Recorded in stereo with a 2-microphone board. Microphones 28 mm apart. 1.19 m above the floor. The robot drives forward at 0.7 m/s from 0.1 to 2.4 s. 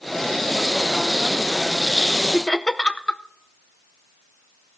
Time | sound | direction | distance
2.3 | laughter | 25° left (ahead or behind) | 0.7 m